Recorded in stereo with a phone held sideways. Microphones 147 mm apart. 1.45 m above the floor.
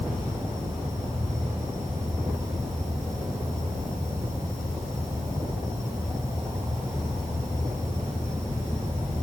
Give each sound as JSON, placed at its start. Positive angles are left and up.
{"t": 0.0, "sound": "an insect", "side_deg": -25, "distance_m": 4.0}